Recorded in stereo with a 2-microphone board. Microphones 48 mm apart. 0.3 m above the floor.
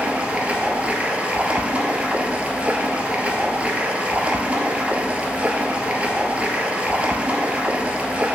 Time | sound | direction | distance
0.0 | running water | 30° right (ahead or behind) | 1.1 m